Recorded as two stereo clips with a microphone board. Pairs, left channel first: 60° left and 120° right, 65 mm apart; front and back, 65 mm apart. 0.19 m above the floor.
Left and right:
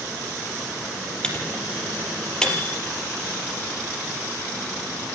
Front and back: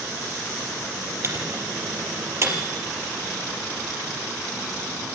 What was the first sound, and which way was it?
A microwave, 135° left.